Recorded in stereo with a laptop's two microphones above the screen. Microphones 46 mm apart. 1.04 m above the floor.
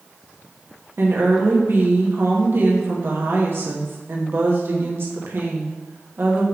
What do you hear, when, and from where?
1.0 s a woman speaking: 55° right (ahead or behind), 1.1 m